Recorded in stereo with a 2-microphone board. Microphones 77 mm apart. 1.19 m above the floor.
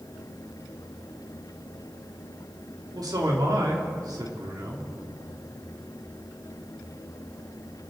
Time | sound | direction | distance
2.9 | a man speaking | 60° right (ahead or behind) | 2.5 m